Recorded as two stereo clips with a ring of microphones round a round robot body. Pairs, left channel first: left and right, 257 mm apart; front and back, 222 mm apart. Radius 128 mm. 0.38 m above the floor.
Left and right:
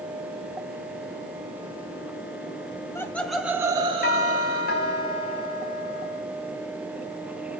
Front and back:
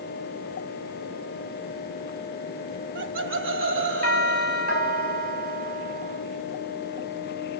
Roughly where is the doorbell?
Behind left.